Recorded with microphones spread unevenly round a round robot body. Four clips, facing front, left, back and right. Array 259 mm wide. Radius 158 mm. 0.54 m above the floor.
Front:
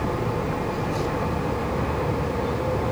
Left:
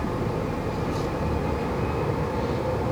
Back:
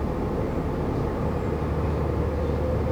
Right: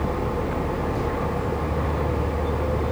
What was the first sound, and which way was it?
Only background noise.